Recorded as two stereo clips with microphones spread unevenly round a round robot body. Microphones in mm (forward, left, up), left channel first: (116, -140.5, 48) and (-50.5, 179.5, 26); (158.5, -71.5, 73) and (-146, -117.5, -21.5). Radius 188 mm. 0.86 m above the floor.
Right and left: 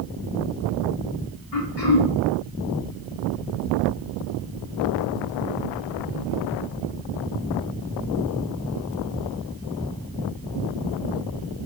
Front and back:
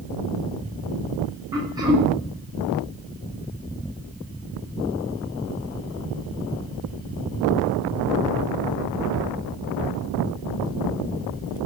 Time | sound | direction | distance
1.5 | throat clearing | 100° right | 2.5 m